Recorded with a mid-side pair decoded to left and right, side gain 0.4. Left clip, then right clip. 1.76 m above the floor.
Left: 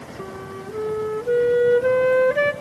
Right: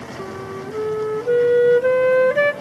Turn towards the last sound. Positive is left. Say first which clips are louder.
# right 3 dB
turn(degrees=-25)